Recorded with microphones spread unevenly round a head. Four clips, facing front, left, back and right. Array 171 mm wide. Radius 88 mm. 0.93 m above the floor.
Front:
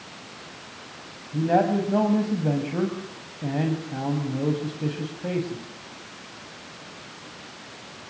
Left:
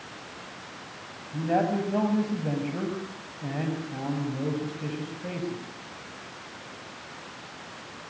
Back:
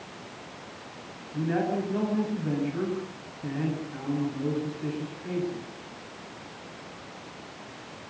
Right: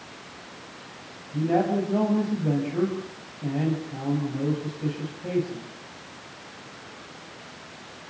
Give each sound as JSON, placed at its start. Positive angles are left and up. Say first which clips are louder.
{"t": 1.3, "sound": "a man speaking", "louder": "right 2 dB, front 6 dB", "azimuth_deg": 5, "distance_m": 7.0}